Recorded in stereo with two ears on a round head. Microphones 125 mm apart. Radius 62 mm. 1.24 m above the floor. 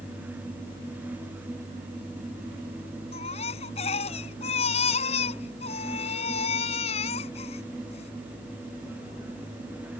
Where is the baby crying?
45° left (ahead or behind).